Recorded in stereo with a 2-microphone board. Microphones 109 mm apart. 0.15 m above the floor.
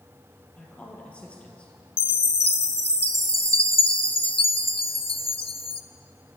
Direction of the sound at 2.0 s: 65° left (ahead or behind).